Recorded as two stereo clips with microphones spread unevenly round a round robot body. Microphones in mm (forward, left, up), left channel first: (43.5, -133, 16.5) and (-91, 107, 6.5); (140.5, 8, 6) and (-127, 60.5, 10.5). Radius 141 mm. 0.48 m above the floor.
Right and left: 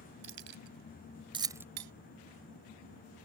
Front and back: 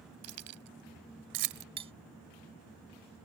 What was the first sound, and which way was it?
Keys jangling, 165° left.